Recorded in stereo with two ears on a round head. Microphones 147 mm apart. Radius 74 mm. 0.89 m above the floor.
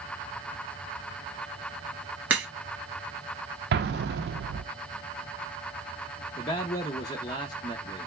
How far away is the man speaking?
About 0.7 m.